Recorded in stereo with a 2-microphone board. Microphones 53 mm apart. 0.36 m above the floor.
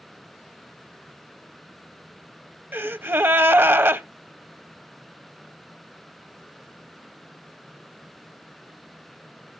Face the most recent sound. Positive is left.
turn(degrees=-45)  # may be behind; listen again after turning